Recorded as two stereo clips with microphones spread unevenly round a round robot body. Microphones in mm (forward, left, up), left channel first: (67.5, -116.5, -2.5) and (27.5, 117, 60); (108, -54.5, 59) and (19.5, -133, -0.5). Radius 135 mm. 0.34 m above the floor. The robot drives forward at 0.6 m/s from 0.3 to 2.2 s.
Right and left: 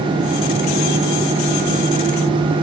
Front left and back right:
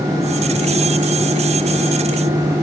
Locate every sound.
Only background noise.